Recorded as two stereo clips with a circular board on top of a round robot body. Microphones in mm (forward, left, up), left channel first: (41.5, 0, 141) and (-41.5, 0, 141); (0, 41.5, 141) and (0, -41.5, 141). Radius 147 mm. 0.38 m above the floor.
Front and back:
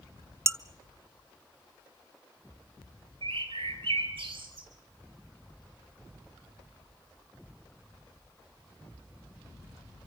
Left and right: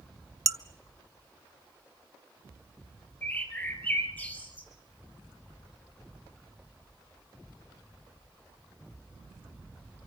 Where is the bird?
165° left, 2.5 m.